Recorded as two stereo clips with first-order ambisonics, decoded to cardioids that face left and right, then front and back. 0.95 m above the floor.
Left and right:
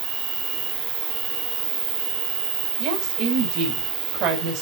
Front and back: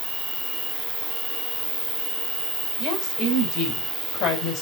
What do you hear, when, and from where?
0.0 s an insect: 95° right, 3.5 m
2.8 s a woman speaking: 45° right, 4 m